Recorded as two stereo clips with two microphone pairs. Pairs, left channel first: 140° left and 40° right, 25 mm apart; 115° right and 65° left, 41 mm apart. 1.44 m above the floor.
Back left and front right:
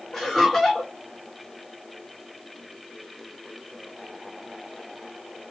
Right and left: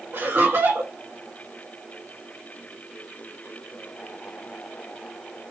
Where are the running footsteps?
I don't hear running footsteps.